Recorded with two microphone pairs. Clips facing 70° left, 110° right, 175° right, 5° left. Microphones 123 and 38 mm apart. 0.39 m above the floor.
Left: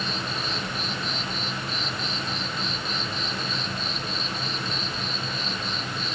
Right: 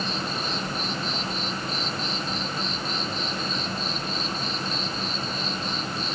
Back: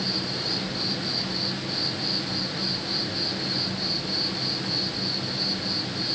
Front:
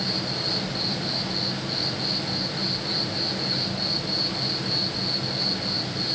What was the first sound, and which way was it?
An insect, 25° right.